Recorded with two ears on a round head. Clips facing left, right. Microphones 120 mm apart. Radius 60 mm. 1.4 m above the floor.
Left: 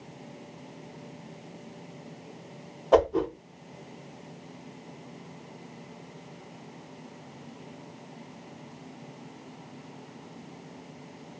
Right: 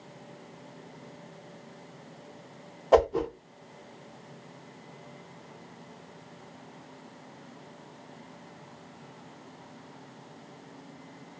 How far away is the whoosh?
About 0.8 m.